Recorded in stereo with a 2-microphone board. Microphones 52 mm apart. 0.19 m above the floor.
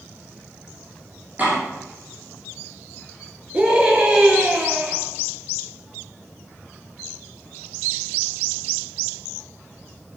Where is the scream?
20° right (ahead or behind), 3 m.